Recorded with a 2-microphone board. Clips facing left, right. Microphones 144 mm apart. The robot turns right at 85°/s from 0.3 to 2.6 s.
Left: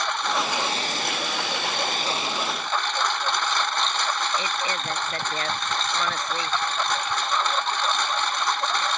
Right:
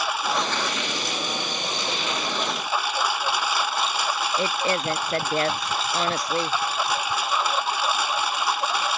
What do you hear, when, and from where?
0.0 s a lawn mower: 5° right; by 9.0 s 170° right
4.4 s a woman speaking: 35° right (ahead or behind)